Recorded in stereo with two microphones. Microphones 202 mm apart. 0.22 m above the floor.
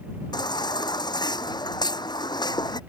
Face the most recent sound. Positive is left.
turn(degrees=20)  # may be behind; listen again after turning